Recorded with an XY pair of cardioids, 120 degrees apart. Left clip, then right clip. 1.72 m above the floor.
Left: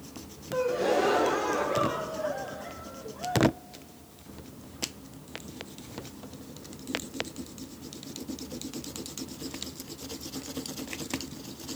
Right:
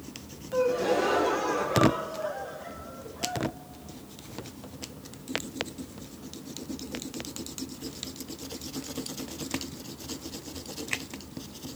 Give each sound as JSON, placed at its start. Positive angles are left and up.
{"t": 0.5, "sound": "a gasp", "azimuth_deg": 10, "distance_m": 1.2}